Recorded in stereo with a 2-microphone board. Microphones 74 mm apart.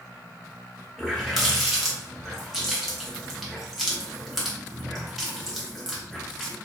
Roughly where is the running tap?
Centre.